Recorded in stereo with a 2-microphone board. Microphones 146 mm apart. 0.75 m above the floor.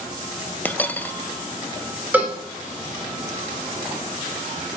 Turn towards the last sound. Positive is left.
turn(degrees=-10)  # may be behind; listen again after turning